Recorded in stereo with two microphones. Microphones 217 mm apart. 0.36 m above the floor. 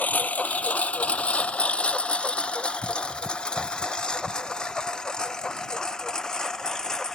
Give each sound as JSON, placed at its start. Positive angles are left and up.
{"t": 0.0, "sound": "a lawn mower", "side_deg": 5}